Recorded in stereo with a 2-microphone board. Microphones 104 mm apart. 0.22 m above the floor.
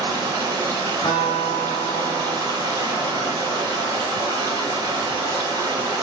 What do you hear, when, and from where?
0.0 s running water: 35° right (ahead or behind), 1.7 m
1.0 s a guitar: 35° left (ahead or behind), 1.3 m